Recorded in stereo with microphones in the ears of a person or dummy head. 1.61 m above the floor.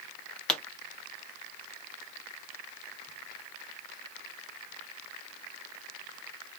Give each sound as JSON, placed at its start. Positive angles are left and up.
{"t": 0.5, "sound": "a pop", "side_deg": 5, "distance_m": 0.9}